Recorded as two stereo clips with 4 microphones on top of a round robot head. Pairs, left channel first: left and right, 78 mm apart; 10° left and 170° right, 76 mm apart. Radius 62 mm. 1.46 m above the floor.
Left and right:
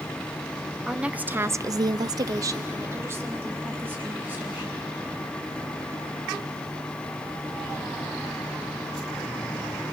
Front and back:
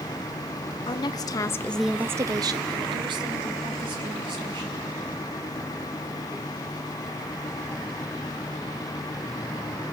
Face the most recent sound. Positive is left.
turn(degrees=-160)